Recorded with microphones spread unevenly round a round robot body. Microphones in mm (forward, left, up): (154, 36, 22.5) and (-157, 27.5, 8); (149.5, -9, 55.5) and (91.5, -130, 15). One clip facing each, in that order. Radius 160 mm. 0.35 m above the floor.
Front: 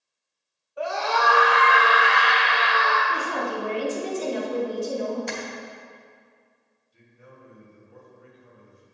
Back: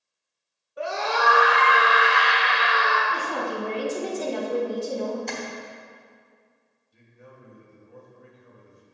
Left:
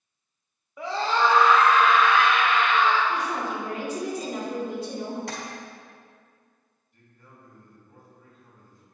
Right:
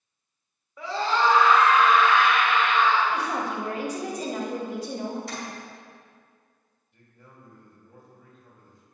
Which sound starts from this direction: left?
Tapping, at 5.3 s.